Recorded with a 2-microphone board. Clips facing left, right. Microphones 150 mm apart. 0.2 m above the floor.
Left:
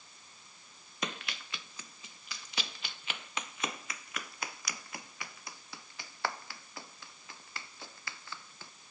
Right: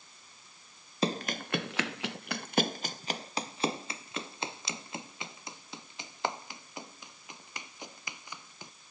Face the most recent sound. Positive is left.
turn(degrees=-15)  # may be behind; listen again after turning